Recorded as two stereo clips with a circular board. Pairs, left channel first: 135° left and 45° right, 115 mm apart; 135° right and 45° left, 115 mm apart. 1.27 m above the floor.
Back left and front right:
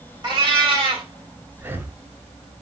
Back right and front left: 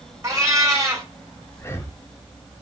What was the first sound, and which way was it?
A cat meowing, 10° right.